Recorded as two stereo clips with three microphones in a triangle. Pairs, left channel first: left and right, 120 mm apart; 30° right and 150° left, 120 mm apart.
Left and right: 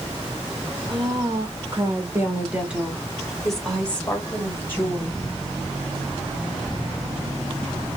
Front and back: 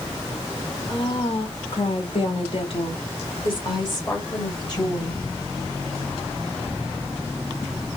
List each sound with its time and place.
0.9 s a woman speaking: 60° right, 1.8 m; by 5.2 s 20° left, 3 m